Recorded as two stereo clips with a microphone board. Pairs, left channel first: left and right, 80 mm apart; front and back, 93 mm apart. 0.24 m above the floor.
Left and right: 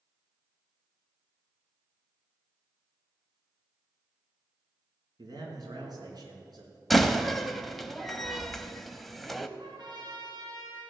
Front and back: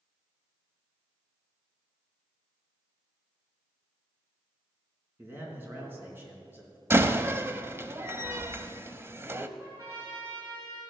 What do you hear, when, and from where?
5.2 s a man speaking: 115° right, 3.5 m
6.9 s a door slam: straight behind, 0.6 m
9.6 s a trumpet: 125° right, 5.5 m